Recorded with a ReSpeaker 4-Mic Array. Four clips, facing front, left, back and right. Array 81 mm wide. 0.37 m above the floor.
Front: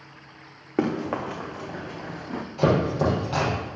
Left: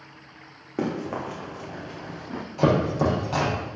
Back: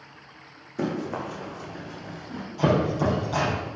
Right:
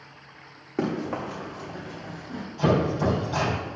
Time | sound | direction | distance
0.8 | running footsteps | straight ahead | 2.5 m
2.6 | chopping | 60° left | 4 m